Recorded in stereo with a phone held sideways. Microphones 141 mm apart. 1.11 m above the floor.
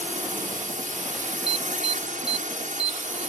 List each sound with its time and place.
0.0 s a drone: 70° right (ahead or behind)
1.5 s an alarm: 45° right (ahead or behind)